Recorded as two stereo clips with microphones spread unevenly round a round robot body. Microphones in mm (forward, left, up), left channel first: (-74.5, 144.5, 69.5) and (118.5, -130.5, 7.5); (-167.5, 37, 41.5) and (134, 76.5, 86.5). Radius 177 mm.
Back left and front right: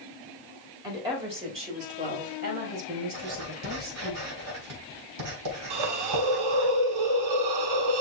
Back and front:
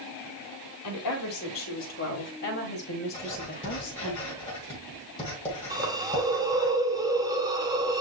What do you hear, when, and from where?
0.8 s a woman speaking: 130° right, 3.5 m; by 4.1 s 105° right, 4.5 m
3.1 s writing: 100° right, 4 m
5.7 s a hiss: 75° right, 1.1 m